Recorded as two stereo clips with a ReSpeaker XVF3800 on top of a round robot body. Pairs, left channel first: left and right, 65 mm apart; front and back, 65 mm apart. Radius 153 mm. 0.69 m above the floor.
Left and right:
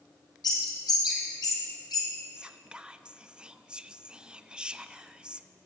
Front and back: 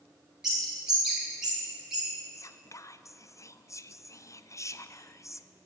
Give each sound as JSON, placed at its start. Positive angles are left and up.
{"t": 0.4, "sound": "a bird", "azimuth_deg": 95, "distance_m": 4.0}
{"t": 2.4, "sound": "whispering", "azimuth_deg": -15, "distance_m": 0.6}